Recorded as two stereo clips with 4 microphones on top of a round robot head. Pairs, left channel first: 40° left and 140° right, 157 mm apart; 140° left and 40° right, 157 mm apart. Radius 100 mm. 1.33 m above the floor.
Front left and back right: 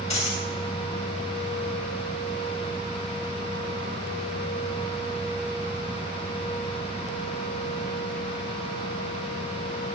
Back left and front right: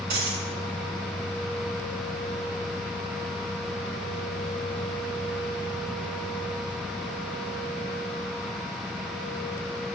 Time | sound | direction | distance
0.1 | a dropped coin | 10° right | 5.5 m